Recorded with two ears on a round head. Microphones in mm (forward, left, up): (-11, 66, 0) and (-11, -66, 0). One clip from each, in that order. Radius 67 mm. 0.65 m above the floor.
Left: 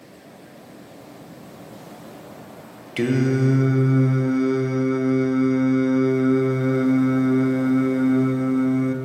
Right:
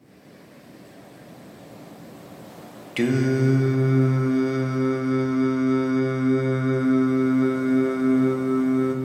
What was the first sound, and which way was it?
Singing, 10° right (ahead or behind).